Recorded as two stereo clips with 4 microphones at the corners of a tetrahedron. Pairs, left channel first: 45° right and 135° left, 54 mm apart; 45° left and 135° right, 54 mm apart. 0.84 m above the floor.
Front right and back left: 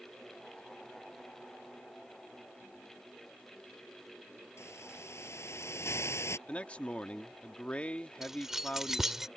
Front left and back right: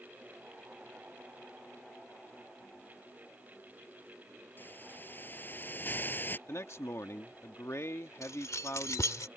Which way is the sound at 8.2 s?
55° left.